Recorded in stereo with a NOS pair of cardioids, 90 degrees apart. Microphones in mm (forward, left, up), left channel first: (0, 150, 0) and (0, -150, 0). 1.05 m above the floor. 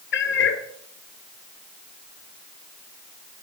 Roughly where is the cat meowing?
Ahead left.